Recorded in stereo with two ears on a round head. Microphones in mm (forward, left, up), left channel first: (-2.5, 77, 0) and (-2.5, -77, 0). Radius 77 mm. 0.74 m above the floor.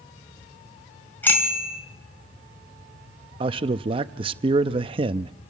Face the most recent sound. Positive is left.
turn(degrees=-30)  # may be behind; listen again after turning